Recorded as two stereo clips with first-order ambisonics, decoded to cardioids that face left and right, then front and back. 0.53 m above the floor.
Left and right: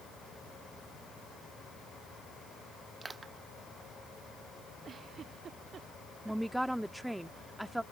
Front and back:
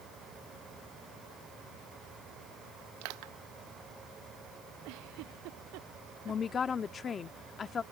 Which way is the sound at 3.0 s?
170° right.